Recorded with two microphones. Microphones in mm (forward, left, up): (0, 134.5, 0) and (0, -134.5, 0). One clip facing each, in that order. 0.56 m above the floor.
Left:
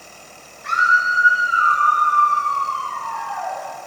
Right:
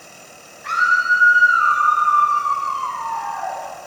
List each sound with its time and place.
0.6 s a scream: 75° right (ahead or behind), 4 m